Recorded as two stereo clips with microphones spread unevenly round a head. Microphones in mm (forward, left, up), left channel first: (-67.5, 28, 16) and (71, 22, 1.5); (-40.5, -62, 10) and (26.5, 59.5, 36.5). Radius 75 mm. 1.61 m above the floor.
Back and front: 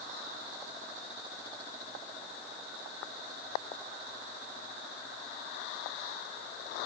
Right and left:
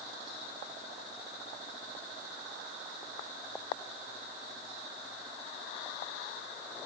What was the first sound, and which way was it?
Only background noise.